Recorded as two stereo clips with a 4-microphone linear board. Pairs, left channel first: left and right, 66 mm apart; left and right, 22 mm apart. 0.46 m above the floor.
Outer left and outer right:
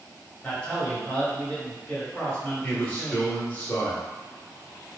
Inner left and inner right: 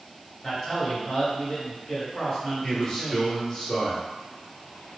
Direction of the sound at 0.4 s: 20° left (ahead or behind).